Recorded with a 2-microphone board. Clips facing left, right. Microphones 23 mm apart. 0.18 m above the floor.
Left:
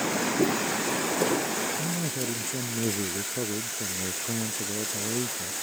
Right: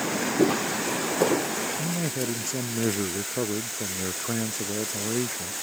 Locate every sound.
0.4 s footsteps: 55° right (ahead or behind); by 1.5 s 50° right (ahead or behind)
1.8 s a man speaking: 45° right (ahead or behind)